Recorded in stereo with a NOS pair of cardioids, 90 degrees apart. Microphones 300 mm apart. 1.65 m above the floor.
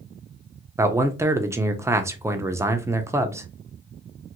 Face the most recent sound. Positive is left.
turn(degrees=-10)